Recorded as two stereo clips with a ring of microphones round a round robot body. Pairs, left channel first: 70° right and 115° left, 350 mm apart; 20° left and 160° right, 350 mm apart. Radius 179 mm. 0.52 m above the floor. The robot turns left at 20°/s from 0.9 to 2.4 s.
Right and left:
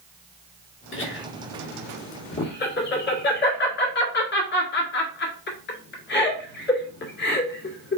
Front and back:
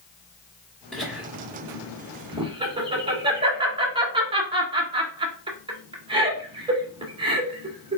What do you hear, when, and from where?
0.9 s laughter: 65° right, 1.4 m; by 8.0 s 95° right, 1.4 m